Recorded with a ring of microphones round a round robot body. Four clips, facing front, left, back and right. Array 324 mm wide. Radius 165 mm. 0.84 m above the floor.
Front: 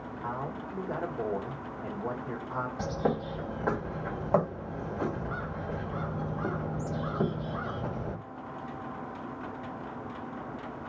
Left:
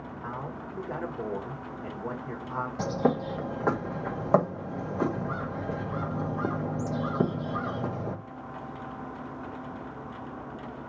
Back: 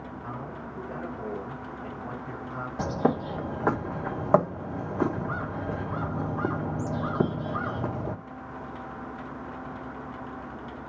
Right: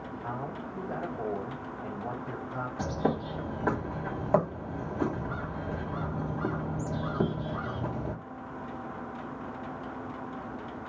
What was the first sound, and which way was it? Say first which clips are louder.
A man speaking: even, front 4 dB; 40° left.